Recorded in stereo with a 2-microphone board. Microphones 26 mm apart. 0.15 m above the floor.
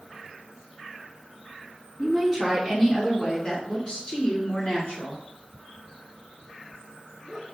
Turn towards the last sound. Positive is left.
turn(degrees=60)  # may be behind; listen again after turning